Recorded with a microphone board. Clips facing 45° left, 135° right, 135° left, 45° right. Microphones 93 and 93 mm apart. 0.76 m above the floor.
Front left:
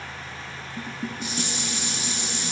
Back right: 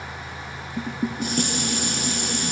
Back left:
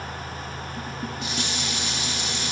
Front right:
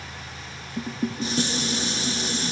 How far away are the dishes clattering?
About 0.6 m.